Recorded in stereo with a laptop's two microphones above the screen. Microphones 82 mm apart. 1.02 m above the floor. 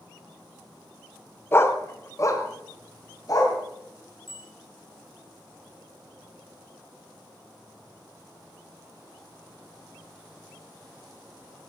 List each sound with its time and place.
1.5 s a dog barking: 30° left (ahead or behind), 1.0 m; by 3.6 s 45° left (ahead or behind), 2.5 m
4.3 s a bicycle bell: 80° left, 4 m